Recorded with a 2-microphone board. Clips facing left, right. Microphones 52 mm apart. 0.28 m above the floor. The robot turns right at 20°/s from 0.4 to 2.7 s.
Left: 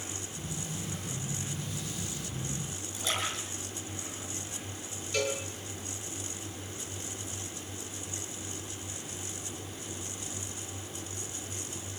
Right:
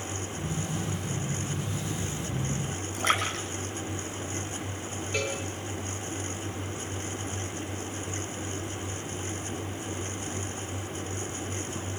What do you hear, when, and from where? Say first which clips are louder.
2.9 s a splash: right 7 dB; 50° right (ahead or behind), 9.5 m
5.1 s a cowbell: even; 15° right (ahead or behind), 5.5 m